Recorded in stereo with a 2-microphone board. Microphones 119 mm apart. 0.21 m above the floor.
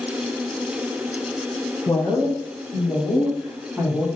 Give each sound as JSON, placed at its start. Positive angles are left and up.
{"t": 1.9, "sound": "a woman speaking", "side_deg": 20, "distance_m": 1.8}